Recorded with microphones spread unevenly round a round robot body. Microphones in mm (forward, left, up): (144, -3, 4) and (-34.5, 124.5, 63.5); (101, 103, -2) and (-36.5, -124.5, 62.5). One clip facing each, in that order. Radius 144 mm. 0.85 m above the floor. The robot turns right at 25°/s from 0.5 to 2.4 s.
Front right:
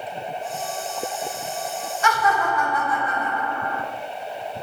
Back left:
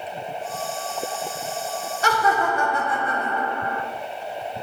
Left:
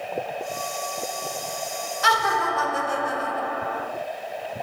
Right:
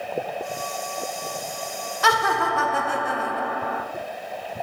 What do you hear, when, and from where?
2.0 s laughter: 155° right, 0.6 m; by 3.8 s 145° right, 0.6 m